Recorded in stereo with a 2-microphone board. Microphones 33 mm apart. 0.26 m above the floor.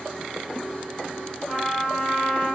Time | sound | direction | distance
1.5 | a trumpet | 15° left (ahead or behind) | 3.5 m